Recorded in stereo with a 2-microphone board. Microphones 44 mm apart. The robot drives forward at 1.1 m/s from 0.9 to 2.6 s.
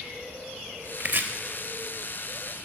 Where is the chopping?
40° right (ahead or behind), 0.5 m; by 1.3 s 45° right (ahead or behind), 0.5 m.